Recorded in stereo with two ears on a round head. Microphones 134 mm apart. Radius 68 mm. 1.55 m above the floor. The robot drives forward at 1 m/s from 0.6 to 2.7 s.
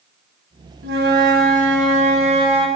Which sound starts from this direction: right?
A flute, at 0.8 s.